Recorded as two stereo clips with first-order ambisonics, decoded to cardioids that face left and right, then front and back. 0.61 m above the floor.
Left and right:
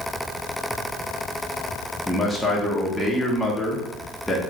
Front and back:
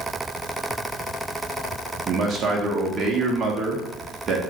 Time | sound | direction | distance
2.1 | a man speaking | straight behind | 0.7 m